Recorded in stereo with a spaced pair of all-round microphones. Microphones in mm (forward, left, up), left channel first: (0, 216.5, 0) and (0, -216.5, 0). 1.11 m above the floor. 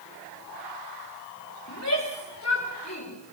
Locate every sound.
1.7 s a shout: 40° left (ahead or behind), 4.5 m